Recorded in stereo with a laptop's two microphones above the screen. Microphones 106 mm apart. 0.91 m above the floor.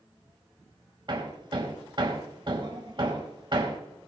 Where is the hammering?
45° right (ahead or behind), 2.5 m.